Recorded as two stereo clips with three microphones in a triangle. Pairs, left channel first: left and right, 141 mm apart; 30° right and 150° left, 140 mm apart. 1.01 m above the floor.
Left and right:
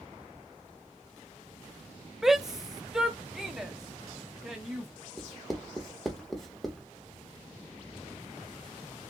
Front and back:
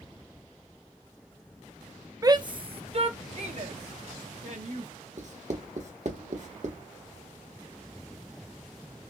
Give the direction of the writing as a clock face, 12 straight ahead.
6 o'clock.